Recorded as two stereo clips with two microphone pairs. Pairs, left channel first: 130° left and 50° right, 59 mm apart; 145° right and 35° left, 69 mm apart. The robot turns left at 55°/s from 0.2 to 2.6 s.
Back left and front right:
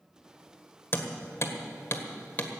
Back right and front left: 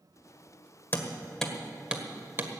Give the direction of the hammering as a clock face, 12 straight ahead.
7 o'clock.